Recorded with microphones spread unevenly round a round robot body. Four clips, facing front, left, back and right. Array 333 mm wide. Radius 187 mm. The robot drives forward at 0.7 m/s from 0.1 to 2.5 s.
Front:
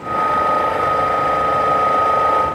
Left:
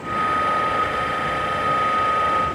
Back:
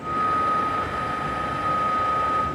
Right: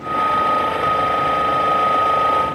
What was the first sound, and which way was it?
Only background noise.